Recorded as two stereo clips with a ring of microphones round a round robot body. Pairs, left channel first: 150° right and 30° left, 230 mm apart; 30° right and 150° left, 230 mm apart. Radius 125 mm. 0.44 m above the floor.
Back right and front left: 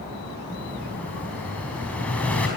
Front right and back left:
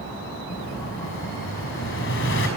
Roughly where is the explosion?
Ahead right.